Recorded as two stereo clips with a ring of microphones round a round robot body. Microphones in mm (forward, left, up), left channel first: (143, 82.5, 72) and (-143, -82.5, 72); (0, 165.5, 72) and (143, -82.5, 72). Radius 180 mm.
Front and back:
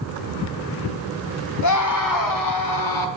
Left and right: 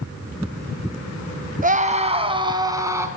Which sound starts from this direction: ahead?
A scream, at 1.6 s.